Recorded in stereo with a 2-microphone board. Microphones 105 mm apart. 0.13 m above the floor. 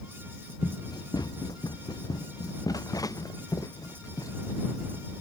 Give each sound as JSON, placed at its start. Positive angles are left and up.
{"t": 0.6, "sound": "running footsteps", "side_deg": 40}